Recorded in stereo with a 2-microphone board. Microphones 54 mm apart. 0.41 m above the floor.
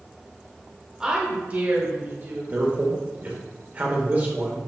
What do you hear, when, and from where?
1.0 s a woman speaking: 10° right (ahead or behind), 1.1 m; by 2.4 s 45° right (ahead or behind), 1.8 m
2.5 s a man speaking: 35° right (ahead or behind), 0.9 m